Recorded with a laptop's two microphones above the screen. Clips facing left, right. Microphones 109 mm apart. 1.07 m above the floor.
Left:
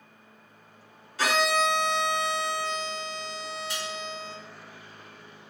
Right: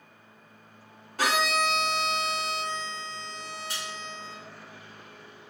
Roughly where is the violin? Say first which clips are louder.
Left 2 dB; right.